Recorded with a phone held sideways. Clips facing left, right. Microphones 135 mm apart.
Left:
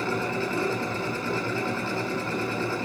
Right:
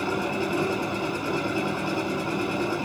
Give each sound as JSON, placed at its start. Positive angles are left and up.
{"t": 0.0, "sound": "a machine running", "side_deg": -15, "distance_m": 4.0}